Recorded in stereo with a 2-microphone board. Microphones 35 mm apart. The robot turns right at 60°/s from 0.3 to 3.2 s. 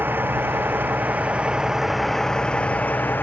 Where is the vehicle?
105° right; by 3.2 s 65° left.